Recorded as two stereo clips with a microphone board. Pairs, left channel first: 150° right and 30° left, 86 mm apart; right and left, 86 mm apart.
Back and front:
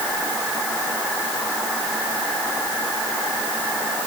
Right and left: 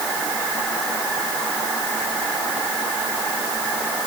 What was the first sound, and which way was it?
Only background noise.